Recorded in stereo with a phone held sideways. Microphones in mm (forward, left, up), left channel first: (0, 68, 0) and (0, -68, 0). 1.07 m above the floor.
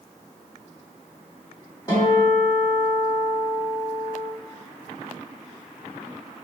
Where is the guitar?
30° left (ahead or behind), 2.0 m.